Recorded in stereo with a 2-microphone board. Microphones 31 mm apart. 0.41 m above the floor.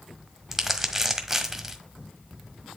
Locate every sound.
0.5 s crumpling: 15° right (ahead or behind), 1.2 m